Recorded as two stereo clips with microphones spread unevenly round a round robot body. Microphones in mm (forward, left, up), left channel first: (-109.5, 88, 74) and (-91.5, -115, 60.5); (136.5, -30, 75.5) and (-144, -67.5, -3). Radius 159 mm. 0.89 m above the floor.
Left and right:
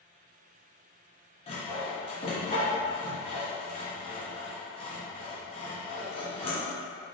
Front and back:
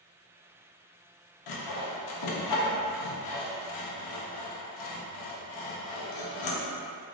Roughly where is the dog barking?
No dog barking in this recording.